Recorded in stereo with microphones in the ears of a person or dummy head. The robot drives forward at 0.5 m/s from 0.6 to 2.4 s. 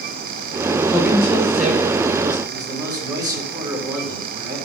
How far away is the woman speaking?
About 6 m.